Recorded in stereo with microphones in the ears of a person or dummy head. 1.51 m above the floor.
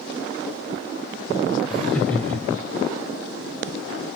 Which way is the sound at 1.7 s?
5° right (ahead or behind).